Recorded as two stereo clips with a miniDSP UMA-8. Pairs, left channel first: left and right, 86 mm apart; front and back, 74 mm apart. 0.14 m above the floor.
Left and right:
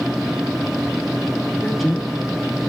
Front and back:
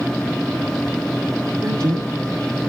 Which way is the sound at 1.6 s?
Straight behind.